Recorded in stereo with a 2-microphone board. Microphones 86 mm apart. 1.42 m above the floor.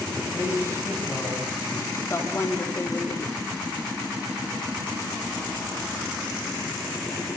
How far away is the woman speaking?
About 4 m.